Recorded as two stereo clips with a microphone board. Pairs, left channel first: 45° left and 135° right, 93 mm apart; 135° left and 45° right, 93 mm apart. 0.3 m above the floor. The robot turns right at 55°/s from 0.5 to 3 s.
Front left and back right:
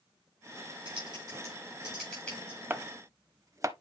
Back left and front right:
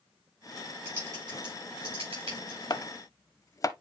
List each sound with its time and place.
0.8 s typing on a keyboard: 105° right, 7 m; by 2.6 s 10° right, 7 m
2.7 s chopping: 160° left, 0.6 m; by 3.7 s straight behind, 0.6 m